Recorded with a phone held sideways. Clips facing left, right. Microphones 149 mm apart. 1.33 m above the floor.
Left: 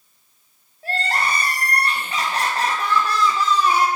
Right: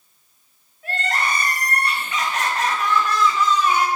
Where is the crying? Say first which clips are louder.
Left 1 dB; 35° left (ahead or behind), 0.5 m.